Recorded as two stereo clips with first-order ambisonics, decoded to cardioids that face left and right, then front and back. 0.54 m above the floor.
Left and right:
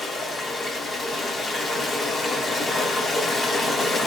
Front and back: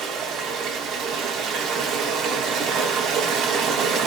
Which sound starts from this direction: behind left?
Running water, at 0.0 s.